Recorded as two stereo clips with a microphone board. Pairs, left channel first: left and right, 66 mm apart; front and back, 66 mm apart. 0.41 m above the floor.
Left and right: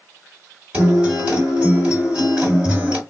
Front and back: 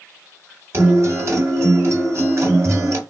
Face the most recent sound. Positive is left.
turn(degrees=-160)